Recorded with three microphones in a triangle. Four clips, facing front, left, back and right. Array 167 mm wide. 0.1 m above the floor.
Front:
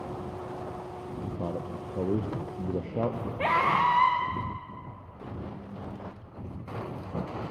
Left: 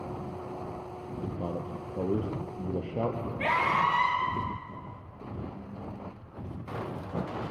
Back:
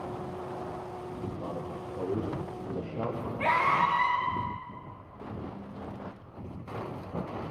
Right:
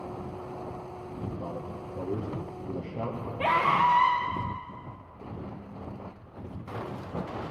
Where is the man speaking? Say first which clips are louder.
Left 2 dB, front 2 dB; 25° left, 2.5 m.